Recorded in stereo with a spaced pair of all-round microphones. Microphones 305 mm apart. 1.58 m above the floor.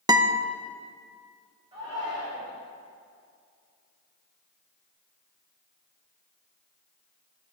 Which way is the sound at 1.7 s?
15° right (ahead or behind).